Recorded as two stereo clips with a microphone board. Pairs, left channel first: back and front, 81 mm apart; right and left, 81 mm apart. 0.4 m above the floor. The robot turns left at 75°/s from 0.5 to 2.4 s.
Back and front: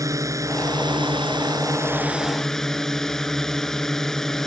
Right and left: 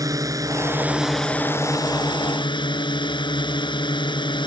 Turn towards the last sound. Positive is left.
turn(degrees=-95)